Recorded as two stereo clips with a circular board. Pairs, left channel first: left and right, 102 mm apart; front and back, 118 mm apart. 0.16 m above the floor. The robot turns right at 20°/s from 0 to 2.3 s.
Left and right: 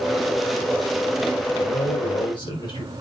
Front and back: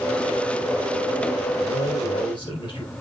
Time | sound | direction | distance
1.6 | a man speaking | 35° left | 4.5 m